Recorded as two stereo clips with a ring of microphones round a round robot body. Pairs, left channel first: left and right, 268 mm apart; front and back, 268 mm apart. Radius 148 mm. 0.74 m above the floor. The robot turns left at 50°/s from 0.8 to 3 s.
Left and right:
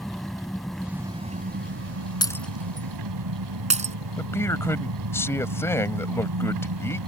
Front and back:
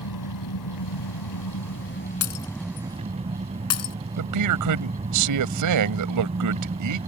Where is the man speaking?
170° left.